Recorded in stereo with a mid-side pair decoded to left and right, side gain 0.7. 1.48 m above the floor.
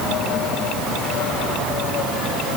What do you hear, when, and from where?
Only background noise.